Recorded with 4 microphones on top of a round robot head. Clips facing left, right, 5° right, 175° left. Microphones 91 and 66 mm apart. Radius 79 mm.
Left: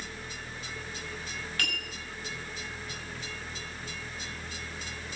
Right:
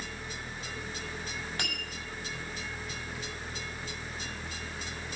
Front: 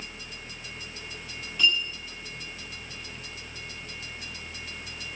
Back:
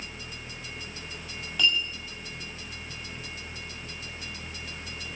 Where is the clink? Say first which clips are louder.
Left 3 dB, front 1 dB; 155° right, 7 m.